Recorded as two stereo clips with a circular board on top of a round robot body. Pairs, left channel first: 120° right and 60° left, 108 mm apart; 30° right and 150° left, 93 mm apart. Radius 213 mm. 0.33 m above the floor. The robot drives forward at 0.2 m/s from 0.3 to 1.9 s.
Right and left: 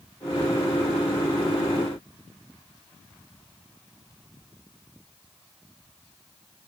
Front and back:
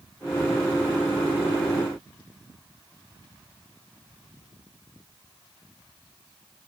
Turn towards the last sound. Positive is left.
No sound to turn to.